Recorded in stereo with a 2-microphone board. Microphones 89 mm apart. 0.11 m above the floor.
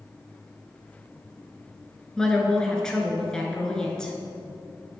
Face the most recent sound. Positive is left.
turn(degrees=10)  # may be behind; listen again after turning